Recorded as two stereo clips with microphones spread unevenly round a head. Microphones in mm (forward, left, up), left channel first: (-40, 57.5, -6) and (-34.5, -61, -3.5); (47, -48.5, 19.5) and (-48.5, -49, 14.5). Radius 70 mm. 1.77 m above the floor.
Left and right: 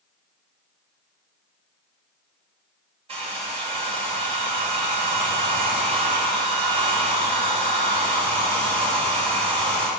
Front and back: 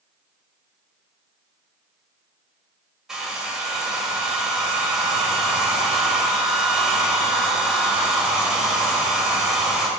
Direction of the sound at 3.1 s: 95° right.